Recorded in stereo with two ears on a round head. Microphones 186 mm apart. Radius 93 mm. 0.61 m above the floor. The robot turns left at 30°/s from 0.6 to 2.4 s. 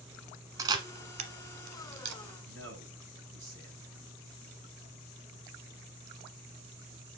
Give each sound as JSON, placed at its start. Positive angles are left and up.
{"t": 0.6, "sound": "a camera shutter", "side_deg": -15, "distance_m": 1.1}
{"t": 2.4, "sound": "a man speaking", "side_deg": -60, "distance_m": 5.5}